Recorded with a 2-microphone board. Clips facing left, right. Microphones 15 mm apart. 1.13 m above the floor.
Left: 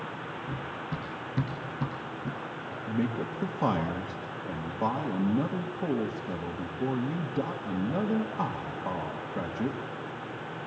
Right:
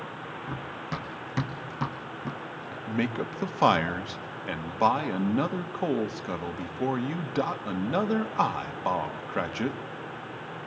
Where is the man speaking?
55° right (ahead or behind), 1.4 m.